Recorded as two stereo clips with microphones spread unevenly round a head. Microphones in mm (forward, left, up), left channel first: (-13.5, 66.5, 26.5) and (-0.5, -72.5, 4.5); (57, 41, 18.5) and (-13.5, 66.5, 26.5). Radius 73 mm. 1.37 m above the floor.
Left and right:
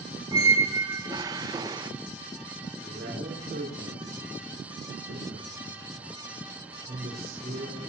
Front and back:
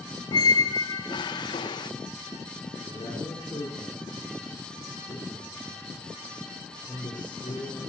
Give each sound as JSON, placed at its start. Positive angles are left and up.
{"t": 0.3, "sound": "a squeak", "azimuth_deg": -15, "distance_m": 0.7}
{"t": 2.8, "sound": "a man speaking", "azimuth_deg": -60, "distance_m": 4.5}